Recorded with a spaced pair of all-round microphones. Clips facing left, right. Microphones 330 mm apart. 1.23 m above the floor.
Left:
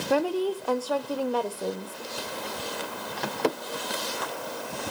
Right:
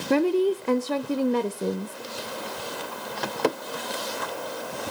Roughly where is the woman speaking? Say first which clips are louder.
Right 5 dB; right.